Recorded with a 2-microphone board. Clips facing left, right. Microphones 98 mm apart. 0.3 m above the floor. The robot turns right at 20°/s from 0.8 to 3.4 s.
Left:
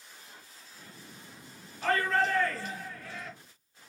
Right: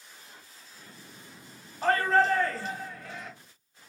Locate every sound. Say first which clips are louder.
1.8 s a shout: right 4 dB; 40° right (ahead or behind), 1.7 m; by 3.3 s 15° right (ahead or behind), 1.7 m